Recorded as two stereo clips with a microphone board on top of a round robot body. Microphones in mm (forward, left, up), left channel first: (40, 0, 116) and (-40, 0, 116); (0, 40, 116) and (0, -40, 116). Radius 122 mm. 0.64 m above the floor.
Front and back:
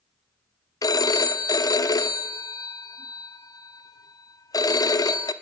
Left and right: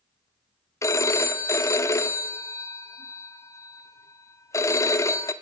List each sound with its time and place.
0.8 s a phone ringing: 40° left, 1.1 m